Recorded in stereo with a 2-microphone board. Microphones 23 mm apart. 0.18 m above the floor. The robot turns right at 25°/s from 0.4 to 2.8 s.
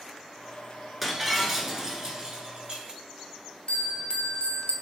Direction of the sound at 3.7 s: 50° left (ahead or behind).